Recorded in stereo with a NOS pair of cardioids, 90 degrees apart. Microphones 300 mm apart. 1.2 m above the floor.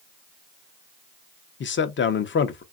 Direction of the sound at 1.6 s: 40° left.